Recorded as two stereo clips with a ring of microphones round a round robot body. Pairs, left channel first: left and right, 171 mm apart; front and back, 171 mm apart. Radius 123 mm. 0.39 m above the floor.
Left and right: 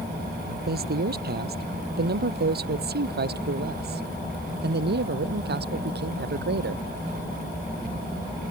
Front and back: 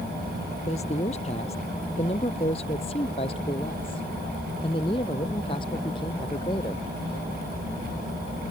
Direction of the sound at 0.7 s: 65° right.